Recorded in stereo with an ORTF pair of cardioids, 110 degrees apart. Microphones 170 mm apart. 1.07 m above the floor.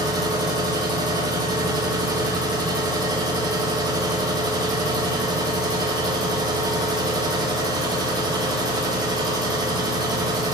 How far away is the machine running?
About 0.7 m.